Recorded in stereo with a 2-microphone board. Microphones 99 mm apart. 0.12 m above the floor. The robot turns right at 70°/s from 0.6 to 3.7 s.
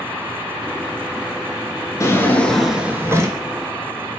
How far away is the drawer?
About 0.5 m.